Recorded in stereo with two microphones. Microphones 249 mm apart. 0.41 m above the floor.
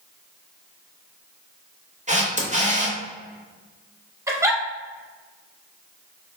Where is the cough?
I don't hear a cough.